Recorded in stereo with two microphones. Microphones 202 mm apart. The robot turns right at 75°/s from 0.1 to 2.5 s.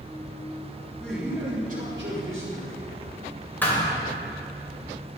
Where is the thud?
10° left (ahead or behind), 2.5 m.